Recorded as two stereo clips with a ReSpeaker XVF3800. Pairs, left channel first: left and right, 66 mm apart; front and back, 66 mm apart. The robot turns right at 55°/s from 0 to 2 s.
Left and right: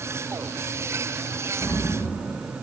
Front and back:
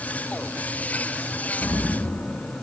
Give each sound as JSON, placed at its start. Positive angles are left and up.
{"t": 1.6, "sound": "an explosion", "azimuth_deg": 40, "distance_m": 2.0}